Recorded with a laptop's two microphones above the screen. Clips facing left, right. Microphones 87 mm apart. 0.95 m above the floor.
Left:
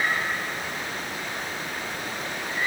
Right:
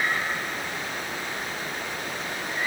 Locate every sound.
Only background noise.